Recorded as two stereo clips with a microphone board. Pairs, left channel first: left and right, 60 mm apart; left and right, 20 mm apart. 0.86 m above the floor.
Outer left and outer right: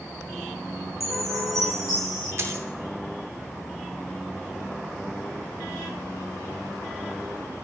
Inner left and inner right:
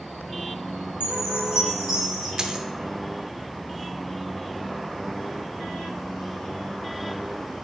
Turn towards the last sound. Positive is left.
turn(degrees=-45)  # may be behind; listen again after turning